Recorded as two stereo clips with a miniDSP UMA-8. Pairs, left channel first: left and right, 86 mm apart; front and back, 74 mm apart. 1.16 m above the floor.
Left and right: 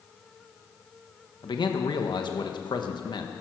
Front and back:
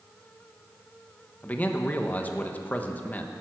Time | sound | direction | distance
1.4 | a man speaking | 65° left | 1.3 m